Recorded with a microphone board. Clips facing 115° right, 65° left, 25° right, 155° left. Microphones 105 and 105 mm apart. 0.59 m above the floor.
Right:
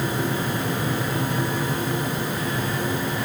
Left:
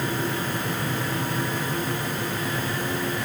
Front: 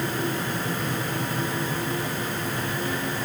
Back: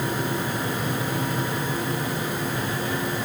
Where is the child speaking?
I don't hear a child speaking.